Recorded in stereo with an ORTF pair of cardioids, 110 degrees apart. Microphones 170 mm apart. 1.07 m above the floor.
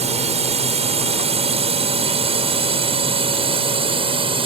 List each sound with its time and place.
0.0 s a drone: 40° right; by 4.5 s 35° right